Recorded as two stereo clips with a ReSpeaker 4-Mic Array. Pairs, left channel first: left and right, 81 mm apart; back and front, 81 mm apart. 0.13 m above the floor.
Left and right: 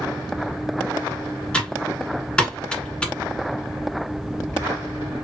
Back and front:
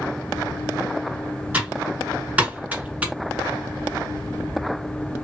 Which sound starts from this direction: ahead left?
Typing on a keyboard, at 1.5 s.